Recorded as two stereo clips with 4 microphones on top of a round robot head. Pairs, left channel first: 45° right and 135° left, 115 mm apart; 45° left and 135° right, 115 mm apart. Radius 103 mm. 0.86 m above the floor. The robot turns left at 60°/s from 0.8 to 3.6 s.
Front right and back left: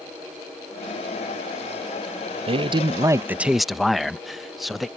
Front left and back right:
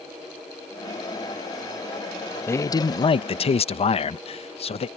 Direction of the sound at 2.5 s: 115° left.